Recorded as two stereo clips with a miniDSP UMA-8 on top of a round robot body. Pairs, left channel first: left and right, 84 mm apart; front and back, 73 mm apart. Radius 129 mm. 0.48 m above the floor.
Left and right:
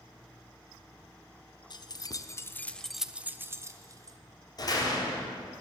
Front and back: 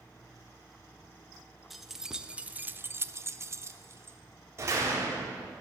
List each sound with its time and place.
1.7 s keys jangling: 90° left, 1.0 m; by 4.2 s 130° right, 1.1 m
4.6 s a door slam: 130° left, 2.5 m